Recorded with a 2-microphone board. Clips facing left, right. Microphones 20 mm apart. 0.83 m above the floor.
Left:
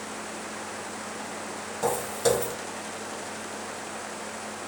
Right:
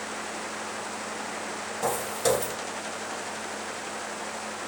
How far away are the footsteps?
About 1.8 m.